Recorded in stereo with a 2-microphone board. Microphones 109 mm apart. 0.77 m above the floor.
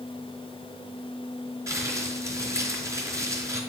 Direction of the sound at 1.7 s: 30° right (ahead or behind).